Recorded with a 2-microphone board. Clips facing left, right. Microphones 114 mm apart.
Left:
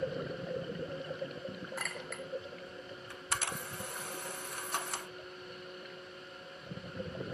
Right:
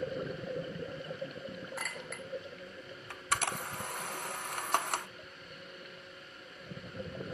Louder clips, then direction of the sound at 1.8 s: Left 1 dB; centre (ahead or behind).